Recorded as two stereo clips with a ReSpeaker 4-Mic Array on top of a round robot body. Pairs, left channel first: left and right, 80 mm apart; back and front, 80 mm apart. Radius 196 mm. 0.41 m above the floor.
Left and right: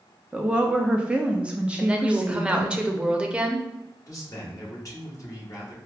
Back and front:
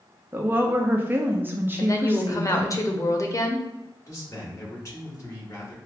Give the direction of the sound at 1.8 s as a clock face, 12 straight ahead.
5 o'clock.